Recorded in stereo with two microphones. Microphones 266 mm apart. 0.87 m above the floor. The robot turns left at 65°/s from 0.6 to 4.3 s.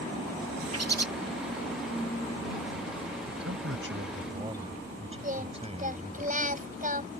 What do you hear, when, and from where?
0.7 s a bird: 65° right (ahead or behind); by 1.1 s 80° right
3.3 s a man speaking: 90° right; by 6.2 s 155° right
5.2 s singing: 30° right (ahead or behind)